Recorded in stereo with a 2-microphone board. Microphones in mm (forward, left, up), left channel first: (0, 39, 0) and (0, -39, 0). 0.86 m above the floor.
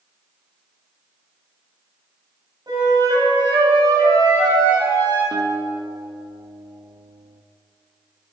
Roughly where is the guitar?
Right.